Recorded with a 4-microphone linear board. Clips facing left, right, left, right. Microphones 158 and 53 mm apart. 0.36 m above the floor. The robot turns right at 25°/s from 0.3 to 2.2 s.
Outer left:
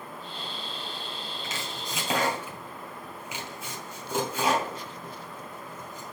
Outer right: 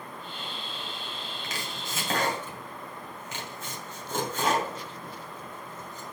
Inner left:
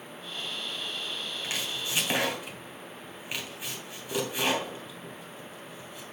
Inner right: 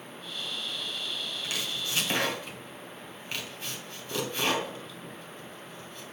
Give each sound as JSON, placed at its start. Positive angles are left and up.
{"t": 1.4, "sound": "chopping", "side_deg": 25, "distance_m": 2.5}